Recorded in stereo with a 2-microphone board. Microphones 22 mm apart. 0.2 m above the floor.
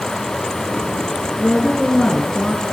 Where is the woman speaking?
15° left (ahead or behind), 3 m.